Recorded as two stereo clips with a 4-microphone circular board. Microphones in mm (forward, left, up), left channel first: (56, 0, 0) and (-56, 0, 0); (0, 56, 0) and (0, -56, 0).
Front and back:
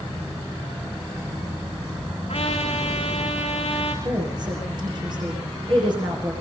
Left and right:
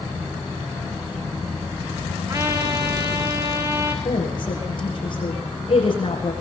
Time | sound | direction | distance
2.3 | a trumpet | 35° right | 4 m
4.0 | a woman speaking | 135° left | 8 m